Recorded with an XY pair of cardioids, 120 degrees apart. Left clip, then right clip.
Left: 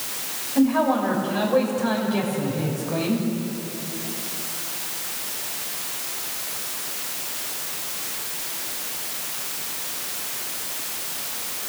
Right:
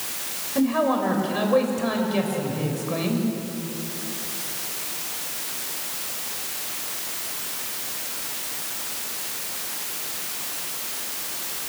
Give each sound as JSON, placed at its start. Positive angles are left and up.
{"t": 0.6, "sound": "a man speaking", "azimuth_deg": -25, "distance_m": 6.5}